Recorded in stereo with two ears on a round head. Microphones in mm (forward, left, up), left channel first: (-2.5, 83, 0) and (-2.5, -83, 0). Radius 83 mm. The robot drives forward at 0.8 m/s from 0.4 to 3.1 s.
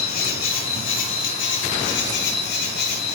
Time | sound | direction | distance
0.0 | an insect | 85° left | 4 m